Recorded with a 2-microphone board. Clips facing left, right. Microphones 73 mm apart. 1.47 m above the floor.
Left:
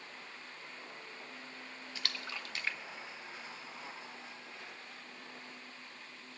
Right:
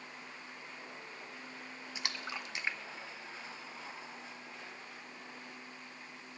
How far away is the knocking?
No knocking in this recording.